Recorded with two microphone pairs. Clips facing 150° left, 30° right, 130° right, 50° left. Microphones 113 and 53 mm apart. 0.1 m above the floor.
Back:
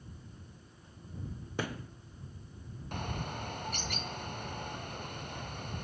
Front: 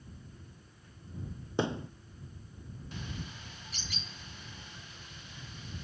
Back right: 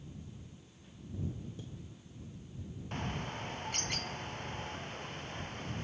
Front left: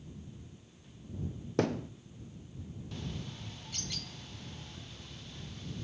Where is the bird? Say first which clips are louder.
Back 6 dB, back right 5 dB; 175° right.